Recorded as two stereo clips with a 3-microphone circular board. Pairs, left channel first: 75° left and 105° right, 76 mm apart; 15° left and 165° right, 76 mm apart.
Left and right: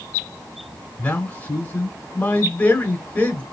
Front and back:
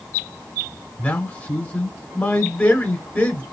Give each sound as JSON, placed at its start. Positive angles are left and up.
{"t": 1.0, "sound": "a man speaking", "azimuth_deg": 45, "distance_m": 1.0}